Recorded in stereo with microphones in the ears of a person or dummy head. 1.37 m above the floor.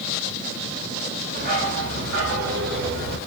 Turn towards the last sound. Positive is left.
turn(degrees=-60)  # may be behind; listen again after turning